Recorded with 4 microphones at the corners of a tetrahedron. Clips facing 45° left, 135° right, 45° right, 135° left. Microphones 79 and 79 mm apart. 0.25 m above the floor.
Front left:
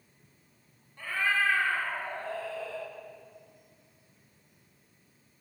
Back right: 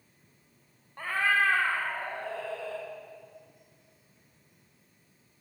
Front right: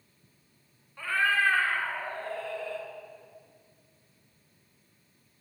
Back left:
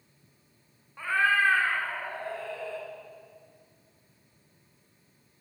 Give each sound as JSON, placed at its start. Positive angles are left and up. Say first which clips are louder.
{"t": 1.0, "sound": "a cat meowing", "louder": "back right 2 dB, back left 2 dB", "azimuth_deg": -155, "distance_m": 1.0}